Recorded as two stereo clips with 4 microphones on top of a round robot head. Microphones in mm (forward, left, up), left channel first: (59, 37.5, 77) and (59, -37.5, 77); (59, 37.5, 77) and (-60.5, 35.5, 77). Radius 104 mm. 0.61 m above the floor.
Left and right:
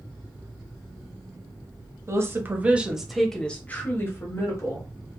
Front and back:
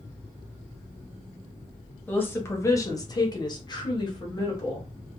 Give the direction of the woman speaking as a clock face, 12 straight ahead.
2 o'clock.